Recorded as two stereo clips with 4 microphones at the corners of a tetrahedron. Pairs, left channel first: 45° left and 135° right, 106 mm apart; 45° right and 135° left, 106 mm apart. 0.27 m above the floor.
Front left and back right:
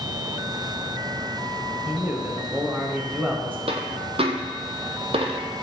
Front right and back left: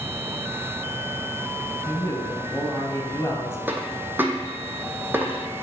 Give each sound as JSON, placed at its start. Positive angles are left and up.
{"t": 1.9, "sound": "a man speaking", "azimuth_deg": -75, "distance_m": 1.0}
{"t": 3.7, "sound": "a dropped coin", "azimuth_deg": -155, "distance_m": 0.7}